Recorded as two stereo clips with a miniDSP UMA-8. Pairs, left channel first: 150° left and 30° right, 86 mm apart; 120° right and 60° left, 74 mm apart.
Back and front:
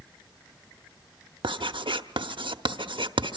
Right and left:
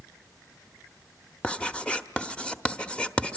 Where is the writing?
45° right, 0.8 m.